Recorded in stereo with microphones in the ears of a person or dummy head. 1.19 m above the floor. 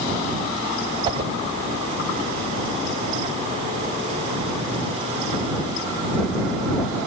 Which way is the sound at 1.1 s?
30° right (ahead or behind).